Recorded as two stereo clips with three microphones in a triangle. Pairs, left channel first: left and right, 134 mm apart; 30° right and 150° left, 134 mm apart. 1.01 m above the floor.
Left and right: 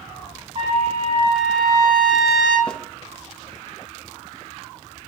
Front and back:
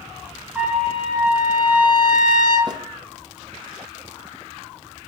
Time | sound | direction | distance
0.6 | a trumpet | 135° right | 3.5 m
2.7 | a snare drum | 165° left | 0.7 m